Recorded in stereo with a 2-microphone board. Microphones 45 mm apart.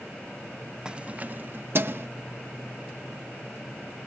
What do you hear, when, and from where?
0.8 s keys jangling: 20° right (ahead or behind); by 2.1 s 55° right (ahead or behind)